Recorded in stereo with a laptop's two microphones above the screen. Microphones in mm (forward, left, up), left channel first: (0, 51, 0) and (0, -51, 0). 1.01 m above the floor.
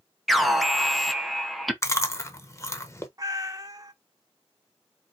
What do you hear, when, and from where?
0.3 s an alarm: centre (ahead or behind), 0.8 m
1.8 s chewing: 25° left (ahead or behind), 0.9 m
3.2 s a cat meowing: 35° right (ahead or behind), 0.7 m